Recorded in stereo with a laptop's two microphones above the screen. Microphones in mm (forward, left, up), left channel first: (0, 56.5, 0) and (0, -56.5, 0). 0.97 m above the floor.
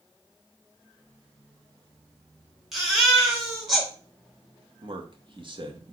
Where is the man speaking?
45° right (ahead or behind), 2 m.